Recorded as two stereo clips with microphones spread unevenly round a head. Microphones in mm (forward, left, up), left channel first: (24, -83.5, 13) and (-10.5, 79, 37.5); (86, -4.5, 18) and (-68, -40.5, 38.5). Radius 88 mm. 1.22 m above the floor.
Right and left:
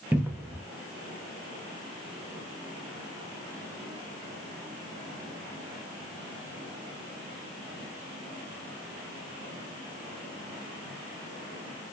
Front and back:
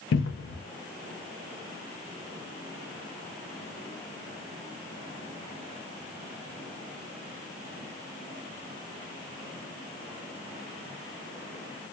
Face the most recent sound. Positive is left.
turn(degrees=20)